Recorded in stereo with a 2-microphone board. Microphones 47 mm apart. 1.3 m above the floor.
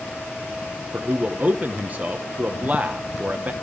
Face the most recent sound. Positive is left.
turn(degrees=-35)  # may be behind; listen again after turning